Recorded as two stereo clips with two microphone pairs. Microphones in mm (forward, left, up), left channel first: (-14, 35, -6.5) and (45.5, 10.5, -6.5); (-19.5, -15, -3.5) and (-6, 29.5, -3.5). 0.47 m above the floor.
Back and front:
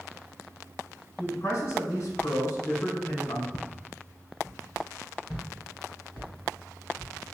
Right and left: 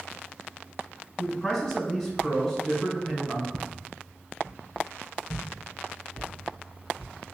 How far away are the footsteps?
About 1.0 m.